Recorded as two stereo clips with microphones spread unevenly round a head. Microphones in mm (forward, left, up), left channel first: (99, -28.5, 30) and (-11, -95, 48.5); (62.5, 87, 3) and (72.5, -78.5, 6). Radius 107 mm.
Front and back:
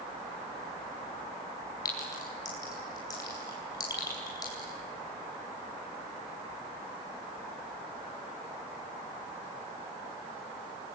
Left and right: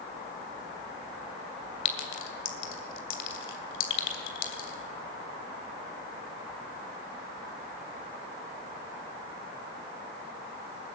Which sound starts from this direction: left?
A clink, at 1.9 s.